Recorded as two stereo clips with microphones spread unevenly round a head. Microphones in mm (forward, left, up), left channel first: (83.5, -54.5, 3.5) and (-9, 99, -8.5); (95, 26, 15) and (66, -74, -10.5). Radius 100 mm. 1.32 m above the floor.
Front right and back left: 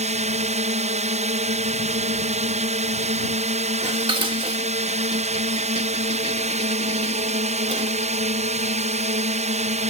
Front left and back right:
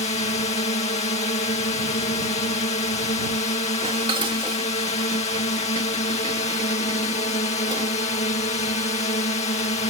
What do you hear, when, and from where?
0.0 s a drone: 80° left
3.8 s dishes clattering: 175° right